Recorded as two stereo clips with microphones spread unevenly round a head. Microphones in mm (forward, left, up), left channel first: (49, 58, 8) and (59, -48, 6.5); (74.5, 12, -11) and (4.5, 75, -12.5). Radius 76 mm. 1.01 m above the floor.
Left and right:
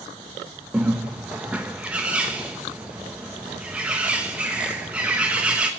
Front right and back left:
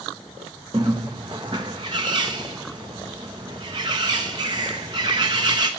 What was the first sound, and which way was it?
A bird, 165° right.